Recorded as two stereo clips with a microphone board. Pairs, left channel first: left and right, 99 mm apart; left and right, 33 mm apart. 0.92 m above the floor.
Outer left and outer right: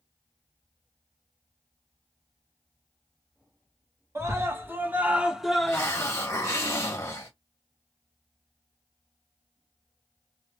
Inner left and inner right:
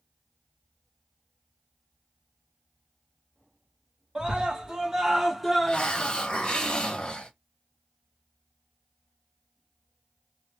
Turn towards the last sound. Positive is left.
turn(degrees=25)  # may be behind; listen again after turning